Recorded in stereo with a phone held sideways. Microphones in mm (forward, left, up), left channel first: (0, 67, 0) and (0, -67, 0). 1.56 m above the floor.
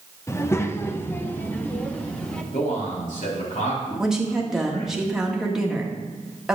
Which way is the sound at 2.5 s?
75° left (ahead or behind).